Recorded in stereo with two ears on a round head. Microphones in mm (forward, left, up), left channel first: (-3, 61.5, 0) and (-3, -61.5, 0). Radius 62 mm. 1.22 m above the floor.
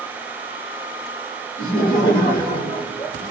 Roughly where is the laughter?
Left.